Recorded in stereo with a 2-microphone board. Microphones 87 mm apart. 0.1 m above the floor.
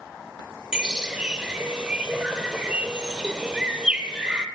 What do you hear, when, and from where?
0.7 s a bird: 10° right (ahead or behind), 0.6 m